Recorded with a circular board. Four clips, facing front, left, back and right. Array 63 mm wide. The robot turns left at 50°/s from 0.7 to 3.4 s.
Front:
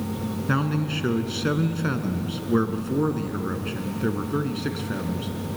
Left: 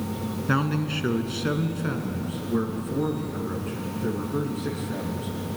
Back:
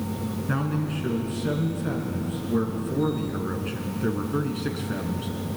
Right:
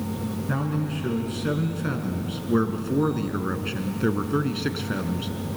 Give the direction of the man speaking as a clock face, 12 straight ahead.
10 o'clock.